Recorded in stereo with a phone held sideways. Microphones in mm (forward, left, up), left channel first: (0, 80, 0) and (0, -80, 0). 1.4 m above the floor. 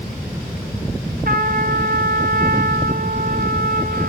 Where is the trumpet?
65° right (ahead or behind), 1.1 m.